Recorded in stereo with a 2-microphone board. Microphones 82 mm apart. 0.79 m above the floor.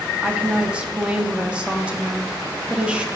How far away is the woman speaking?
About 1.2 m.